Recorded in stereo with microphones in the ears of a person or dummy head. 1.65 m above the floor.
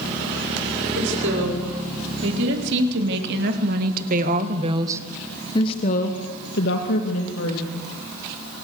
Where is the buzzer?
No buzzer in this recording.